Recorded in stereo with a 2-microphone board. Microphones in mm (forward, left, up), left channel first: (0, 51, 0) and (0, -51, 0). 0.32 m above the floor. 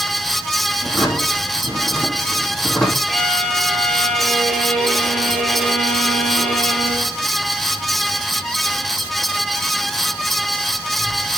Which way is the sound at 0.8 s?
Centre (ahead or behind).